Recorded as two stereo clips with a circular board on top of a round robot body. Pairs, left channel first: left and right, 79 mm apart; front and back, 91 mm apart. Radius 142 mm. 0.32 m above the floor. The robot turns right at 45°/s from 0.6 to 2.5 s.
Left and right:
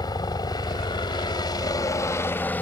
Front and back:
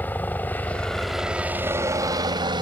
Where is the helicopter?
70° left; by 2.6 s 155° left.